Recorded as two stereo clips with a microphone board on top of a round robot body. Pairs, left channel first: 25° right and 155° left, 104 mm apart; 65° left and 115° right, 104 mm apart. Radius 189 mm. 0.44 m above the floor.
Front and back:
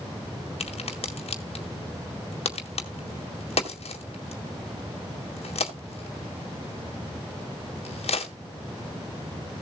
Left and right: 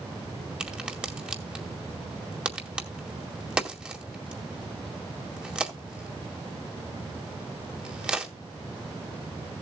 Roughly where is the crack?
Ahead right.